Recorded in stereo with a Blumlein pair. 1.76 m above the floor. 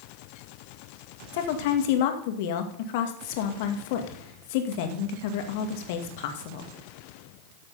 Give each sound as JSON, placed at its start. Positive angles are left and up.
{"t": 1.3, "sound": "a woman speaking", "azimuth_deg": 50, "distance_m": 2.0}